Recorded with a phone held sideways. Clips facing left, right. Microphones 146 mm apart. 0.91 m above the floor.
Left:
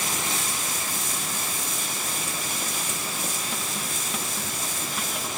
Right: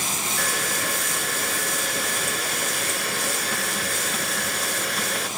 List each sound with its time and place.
0.4 s a hair dryer: 75° right (ahead or behind)